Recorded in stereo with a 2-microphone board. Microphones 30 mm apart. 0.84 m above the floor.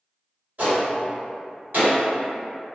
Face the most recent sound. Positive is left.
turn(degrees=-65)  # may be behind; listen again after turning